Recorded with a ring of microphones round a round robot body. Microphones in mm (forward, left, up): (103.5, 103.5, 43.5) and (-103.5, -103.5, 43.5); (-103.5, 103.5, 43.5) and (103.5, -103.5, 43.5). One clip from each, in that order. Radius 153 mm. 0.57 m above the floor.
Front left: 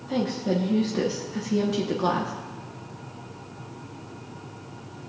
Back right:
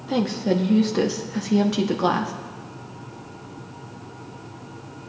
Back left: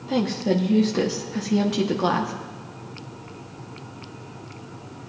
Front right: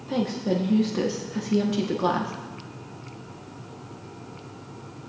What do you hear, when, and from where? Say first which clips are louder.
0.1 s a woman speaking: back right 3 dB, back left 3 dB; 160° right, 0.8 m